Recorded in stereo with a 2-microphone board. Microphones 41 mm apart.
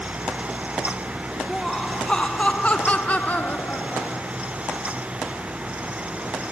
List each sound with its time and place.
1.5 s laughter: 5° left (ahead or behind); by 4.3 s 45° left (ahead or behind)